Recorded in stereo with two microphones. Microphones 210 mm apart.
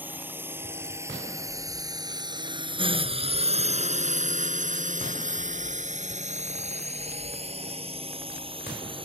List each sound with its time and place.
0.0 s a drone: 10° right (ahead or behind); by 9.1 s 25° right (ahead or behind)